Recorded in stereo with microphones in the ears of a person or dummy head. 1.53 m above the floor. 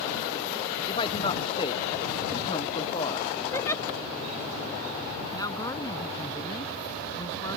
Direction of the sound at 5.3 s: 25° left (ahead or behind).